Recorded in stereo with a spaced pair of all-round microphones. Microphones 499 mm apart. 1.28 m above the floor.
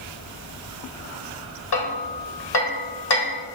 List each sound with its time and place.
1.7 s hammering: 50° left (ahead or behind), 1.4 m